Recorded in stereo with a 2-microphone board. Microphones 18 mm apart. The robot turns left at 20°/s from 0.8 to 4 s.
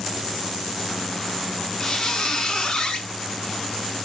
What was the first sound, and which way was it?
A squeak, 25° left (ahead or behind).